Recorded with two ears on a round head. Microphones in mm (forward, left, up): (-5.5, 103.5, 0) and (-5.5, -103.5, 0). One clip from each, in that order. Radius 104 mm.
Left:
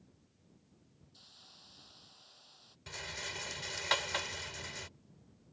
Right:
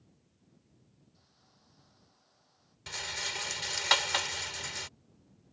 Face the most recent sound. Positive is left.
turn(degrees=-35)  # may be behind; listen again after turning